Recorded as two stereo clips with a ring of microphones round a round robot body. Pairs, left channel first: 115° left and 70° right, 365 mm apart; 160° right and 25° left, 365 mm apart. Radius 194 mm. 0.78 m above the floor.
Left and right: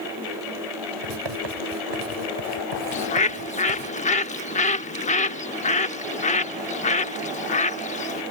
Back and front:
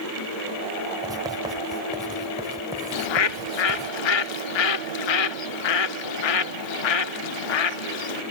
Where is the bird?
175° right.